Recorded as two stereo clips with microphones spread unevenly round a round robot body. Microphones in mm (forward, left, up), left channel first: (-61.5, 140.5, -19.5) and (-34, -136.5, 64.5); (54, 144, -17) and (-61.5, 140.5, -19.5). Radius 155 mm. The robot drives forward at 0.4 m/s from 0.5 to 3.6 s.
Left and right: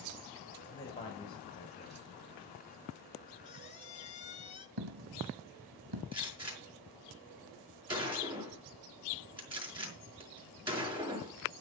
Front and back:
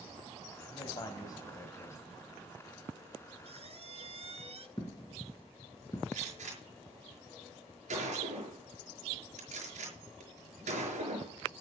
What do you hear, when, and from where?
0.7 s a man speaking: 40° left, 1.9 m; by 2.1 s 55° left, 1.6 m
3.4 s a squeak: 155° left, 1.9 m
4.8 s a dropped coin: 70° right, 1.3 m
6.1 s a gunshot: 160° right, 5.5 m